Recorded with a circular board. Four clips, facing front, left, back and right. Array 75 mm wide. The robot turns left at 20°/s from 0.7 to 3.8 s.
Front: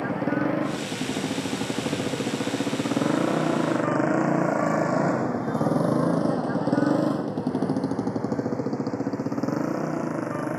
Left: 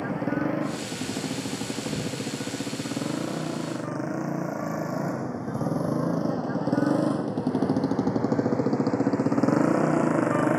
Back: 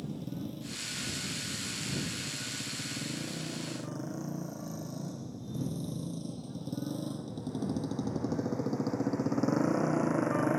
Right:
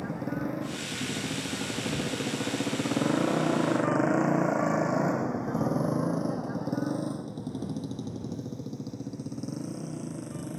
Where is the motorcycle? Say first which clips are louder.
Left 6 dB, front 15 dB; 20° left; by 10.6 s 90° left.